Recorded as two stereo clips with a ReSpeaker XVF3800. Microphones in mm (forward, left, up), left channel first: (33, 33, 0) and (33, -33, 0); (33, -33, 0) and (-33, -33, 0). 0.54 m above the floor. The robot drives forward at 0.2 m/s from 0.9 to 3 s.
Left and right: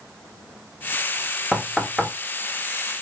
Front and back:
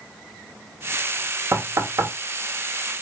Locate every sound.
1.5 s knocking: straight behind, 0.5 m